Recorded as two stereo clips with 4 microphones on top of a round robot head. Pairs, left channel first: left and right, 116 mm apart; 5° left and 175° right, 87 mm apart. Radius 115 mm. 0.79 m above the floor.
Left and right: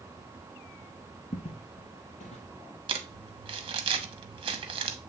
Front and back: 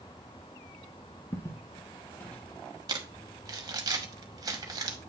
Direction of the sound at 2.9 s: 135° right.